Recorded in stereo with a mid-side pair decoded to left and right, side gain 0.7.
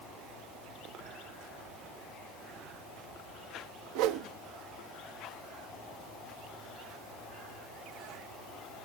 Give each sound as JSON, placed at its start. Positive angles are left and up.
{"t": 4.0, "sound": "a whoosh", "azimuth_deg": -70, "distance_m": 1.1}